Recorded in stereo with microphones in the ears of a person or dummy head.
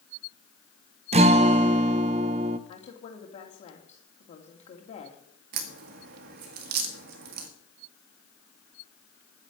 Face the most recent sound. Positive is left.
turn(degrees=-60)  # may be behind; listen again after turning